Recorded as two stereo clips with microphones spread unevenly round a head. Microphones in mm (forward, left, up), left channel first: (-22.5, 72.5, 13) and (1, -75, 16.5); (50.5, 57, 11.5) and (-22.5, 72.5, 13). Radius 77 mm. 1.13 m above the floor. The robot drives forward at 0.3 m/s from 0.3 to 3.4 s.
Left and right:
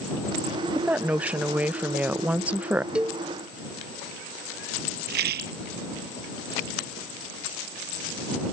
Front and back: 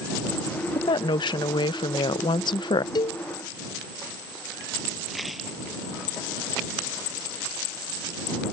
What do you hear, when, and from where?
0.8 s a woman speaking: straight ahead
3.0 s a cowbell: straight ahead
5.1 s a rattle: 105° right